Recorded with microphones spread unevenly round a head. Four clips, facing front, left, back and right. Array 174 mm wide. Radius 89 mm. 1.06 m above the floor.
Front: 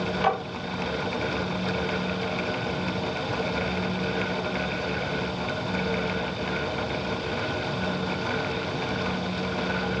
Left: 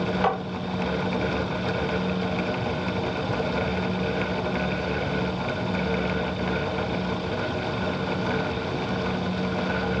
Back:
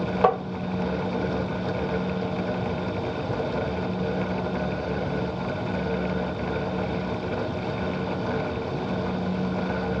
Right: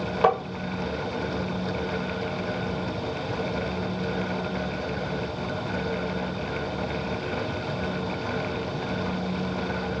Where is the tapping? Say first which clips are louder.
Right 5 dB, back 4 dB; 155° right, 2.5 m.